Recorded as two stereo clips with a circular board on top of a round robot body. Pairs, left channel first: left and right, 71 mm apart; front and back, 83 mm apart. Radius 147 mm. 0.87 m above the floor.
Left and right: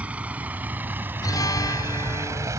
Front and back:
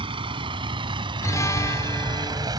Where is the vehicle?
165° right; by 2.6 s 140° right.